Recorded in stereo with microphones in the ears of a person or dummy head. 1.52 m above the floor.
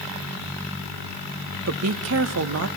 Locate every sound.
1.7 s a woman speaking: 80° right, 1.3 m